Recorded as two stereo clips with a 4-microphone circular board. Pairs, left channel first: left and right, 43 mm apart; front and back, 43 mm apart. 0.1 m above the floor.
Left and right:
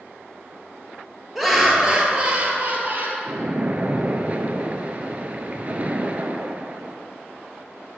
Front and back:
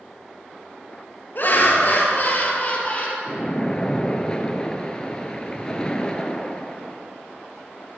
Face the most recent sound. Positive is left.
turn(degrees=-55)